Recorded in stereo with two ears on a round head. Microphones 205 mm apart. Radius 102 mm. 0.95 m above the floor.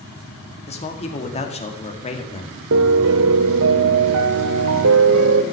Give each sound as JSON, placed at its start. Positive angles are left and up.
{"t": 0.7, "sound": "a man speaking", "side_deg": 30, "distance_m": 2.0}
{"t": 2.7, "sound": "a piano", "side_deg": -60, "distance_m": 0.8}